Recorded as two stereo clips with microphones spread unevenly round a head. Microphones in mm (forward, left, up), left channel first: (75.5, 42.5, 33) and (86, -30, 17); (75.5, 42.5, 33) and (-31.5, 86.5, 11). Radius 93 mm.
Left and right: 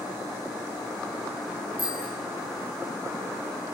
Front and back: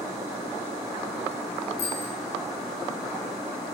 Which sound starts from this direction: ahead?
A bicycle bell, at 1.8 s.